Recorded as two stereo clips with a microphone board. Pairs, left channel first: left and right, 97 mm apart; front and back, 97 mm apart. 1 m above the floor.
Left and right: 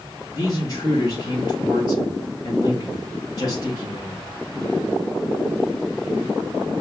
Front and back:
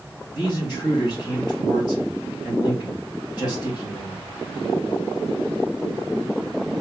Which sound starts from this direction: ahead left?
A man speaking, at 0.3 s.